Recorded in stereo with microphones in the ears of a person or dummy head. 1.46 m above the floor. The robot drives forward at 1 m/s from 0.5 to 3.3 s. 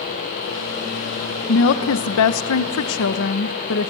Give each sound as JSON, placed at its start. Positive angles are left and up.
{"t": 1.5, "sound": "a woman speaking", "side_deg": 55, "distance_m": 1.7}